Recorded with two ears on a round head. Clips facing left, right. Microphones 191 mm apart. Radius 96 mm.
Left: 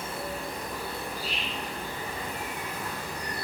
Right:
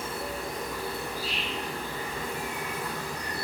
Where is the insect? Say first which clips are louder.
Right 1 dB; 60° right (ahead or behind), 2 m.